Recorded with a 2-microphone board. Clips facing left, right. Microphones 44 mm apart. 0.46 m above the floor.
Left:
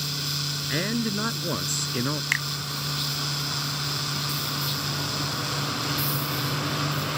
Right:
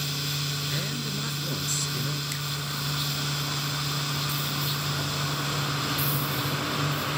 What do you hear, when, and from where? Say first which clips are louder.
0.7 s a man speaking: left 5 dB; 40° left (ahead or behind)
2.3 s a finger snap: left 9 dB; 60° left (ahead or behind)